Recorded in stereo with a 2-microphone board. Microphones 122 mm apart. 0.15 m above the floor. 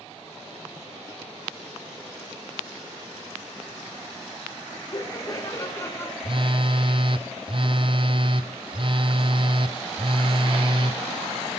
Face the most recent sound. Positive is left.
turn(degrees=-45)  # may be behind; listen again after turning